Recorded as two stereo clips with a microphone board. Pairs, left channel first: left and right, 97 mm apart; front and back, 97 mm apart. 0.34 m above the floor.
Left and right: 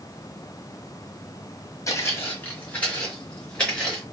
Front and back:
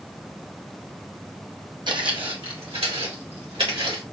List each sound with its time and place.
1.9 s footsteps: 145° left, 0.9 m; by 4.0 s 170° left, 3 m